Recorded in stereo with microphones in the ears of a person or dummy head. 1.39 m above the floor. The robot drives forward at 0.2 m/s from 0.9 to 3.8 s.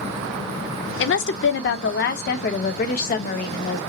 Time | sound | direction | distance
1.0 | a woman speaking | 60° left (ahead or behind) | 0.7 m